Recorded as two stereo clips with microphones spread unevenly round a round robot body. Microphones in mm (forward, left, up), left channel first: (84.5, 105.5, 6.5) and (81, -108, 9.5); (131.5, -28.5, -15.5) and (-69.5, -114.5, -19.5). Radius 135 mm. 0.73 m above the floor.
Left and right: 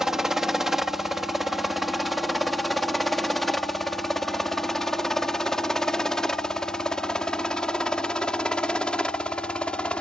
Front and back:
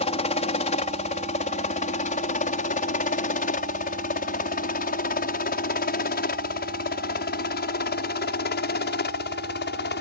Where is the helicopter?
5° right; by 10.0 s 5° left.